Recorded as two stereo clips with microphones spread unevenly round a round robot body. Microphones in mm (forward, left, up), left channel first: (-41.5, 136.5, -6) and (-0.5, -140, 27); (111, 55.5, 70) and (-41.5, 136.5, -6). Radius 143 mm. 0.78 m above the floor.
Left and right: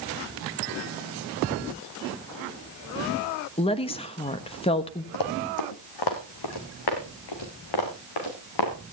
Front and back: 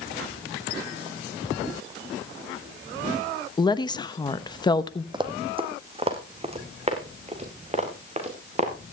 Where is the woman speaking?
60° left, 1.1 m.